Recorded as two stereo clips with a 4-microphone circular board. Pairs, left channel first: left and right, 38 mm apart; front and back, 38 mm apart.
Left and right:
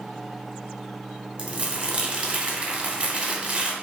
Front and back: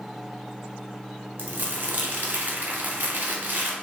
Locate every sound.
1.4 s crumpling: 145° right, 0.7 m